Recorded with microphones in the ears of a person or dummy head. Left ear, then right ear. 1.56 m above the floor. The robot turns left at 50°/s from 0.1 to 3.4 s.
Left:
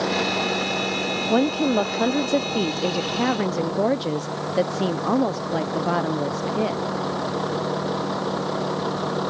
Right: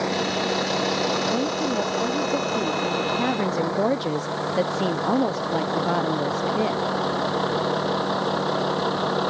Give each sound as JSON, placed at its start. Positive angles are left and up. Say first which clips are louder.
{"t": 0.0, "sound": "a vehicle", "louder": "left 1 dB", "side_deg": 5}
{"t": 1.3, "sound": "a woman speaking", "louder": "left 3 dB", "azimuth_deg": 110}